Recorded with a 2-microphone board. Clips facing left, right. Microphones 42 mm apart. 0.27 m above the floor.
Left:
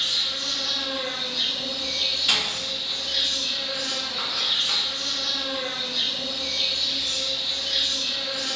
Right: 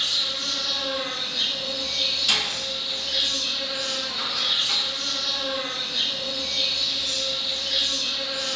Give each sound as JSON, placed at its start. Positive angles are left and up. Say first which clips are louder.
{"t": 0.0, "sound": "an insect", "louder": "even", "side_deg": -30, "distance_m": 1.9}
{"t": 2.3, "sound": "a door slam", "louder": "even", "side_deg": 15, "distance_m": 1.1}